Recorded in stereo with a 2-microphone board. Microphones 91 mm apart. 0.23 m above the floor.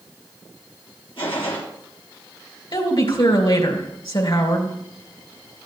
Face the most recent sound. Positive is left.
turn(degrees=65)  # may be behind; listen again after turning